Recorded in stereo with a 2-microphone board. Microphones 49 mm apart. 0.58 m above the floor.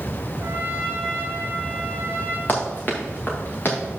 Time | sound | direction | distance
0.4 | a trumpet | 45° right (ahead or behind) | 1.6 m
2.5 | running footsteps | 30° left (ahead or behind) | 2 m